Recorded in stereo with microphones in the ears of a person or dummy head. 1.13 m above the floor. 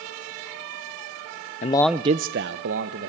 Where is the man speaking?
35° left (ahead or behind), 0.5 m; by 3.1 s 75° right (ahead or behind), 1.5 m.